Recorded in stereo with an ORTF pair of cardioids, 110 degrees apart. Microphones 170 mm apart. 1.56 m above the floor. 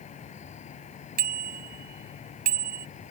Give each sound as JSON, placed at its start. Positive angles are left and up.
{"t": 0.0, "sound": "an insect", "azimuth_deg": 45}
{"t": 1.2, "sound": "a bicycle bell", "azimuth_deg": -60}